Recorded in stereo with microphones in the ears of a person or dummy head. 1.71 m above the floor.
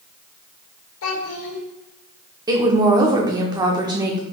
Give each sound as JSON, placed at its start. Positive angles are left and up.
{"t": 1.0, "sound": "a child speaking", "side_deg": 70, "distance_m": 1.5}
{"t": 2.5, "sound": "a woman speaking", "side_deg": -25, "distance_m": 0.8}